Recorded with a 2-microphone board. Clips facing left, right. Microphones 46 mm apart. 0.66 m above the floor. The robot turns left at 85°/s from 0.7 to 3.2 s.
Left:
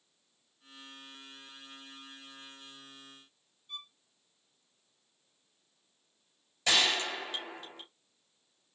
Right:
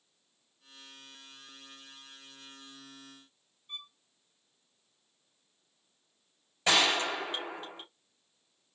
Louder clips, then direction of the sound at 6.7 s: Right 2 dB; 25° right (ahead or behind).